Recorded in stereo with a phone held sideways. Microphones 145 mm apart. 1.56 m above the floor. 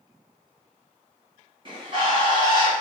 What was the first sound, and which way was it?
A bird, 35° right (ahead or behind).